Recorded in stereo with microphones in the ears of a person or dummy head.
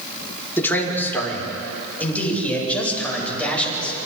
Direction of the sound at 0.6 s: 10° left (ahead or behind).